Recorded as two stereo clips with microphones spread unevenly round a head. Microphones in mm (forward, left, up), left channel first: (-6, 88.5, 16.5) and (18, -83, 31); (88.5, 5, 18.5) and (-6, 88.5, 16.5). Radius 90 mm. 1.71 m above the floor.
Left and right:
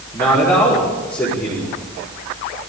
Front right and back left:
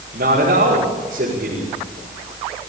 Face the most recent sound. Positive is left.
turn(degrees=180)